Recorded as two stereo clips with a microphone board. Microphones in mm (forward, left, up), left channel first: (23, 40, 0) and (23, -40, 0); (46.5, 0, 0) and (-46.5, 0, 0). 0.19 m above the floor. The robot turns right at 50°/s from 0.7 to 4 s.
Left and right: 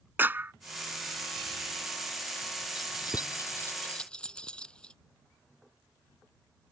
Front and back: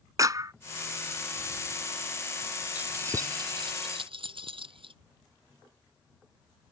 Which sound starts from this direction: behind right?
A clap, at 0.2 s.